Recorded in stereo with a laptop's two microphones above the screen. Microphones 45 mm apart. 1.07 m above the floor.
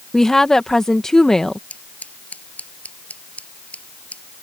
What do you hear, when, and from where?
0.1 s a woman speaking: 10° left (ahead or behind)
1.7 s scissors: 35° left (ahead or behind)